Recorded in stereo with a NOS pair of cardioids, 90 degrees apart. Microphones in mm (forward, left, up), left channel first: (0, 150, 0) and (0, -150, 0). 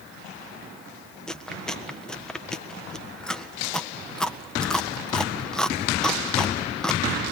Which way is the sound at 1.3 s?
Straight ahead.